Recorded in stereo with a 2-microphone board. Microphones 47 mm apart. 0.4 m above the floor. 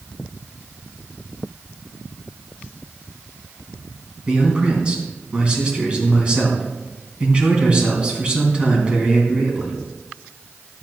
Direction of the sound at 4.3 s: 25° right (ahead or behind).